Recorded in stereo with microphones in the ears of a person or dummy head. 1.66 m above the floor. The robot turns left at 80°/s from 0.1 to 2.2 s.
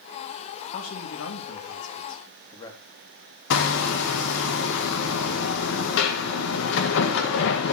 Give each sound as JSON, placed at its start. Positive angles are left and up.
{"t": 0.7, "sound": "a man speaking", "azimuth_deg": 135, "distance_m": 2.5}
{"t": 3.5, "sound": "hammering", "side_deg": 70, "distance_m": 1.7}